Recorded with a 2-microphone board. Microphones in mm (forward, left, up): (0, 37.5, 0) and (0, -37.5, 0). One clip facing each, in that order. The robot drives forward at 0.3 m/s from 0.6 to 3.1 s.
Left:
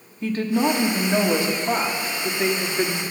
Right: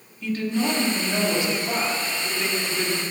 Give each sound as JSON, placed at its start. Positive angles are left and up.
{"t": 0.2, "sound": "a woman speaking", "side_deg": 40, "distance_m": 1.5}